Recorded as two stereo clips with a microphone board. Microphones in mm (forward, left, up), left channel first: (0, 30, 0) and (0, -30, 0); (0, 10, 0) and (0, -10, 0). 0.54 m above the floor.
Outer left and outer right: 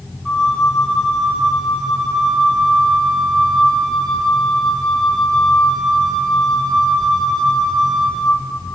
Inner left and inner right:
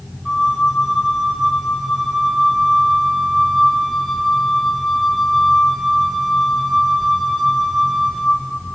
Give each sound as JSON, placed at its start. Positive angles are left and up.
{"t": 0.2, "sound": "a flute", "side_deg": 10, "distance_m": 1.6}